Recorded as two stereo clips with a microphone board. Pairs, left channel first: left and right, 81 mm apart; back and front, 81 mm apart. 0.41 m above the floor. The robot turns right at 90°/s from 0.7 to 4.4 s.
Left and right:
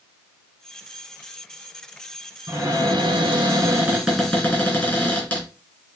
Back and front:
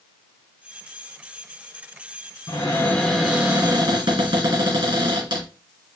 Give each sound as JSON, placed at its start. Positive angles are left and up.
{"t": 2.5, "sound": "a cupboard door", "azimuth_deg": -155, "distance_m": 2.5}